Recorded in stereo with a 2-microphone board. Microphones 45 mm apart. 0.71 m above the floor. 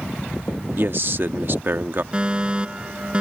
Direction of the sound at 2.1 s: 20° right (ahead or behind).